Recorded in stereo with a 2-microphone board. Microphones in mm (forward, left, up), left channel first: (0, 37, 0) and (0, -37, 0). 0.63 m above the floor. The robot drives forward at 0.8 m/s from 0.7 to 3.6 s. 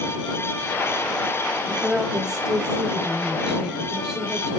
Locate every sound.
1.7 s a woman speaking: 10° right (ahead or behind), 4 m